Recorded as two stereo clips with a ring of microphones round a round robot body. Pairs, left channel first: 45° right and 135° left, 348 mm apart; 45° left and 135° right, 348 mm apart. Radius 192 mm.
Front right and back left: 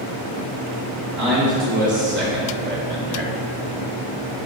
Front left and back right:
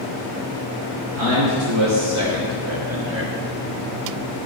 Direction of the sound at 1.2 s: 170° right.